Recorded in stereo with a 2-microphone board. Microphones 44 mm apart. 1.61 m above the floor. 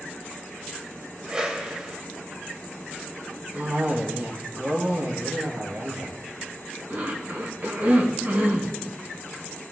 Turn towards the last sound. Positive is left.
turn(degrees=-70)  # may be behind; listen again after turning